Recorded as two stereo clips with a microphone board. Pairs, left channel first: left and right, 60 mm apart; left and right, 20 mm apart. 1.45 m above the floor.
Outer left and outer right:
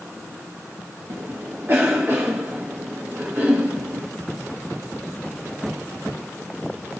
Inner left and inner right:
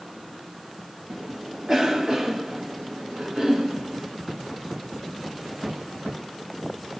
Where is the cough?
40° right (ahead or behind), 0.9 m.